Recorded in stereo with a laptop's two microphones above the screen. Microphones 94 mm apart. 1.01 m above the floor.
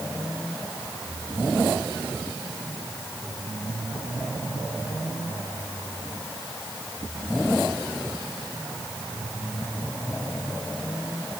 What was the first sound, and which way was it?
Only background noise.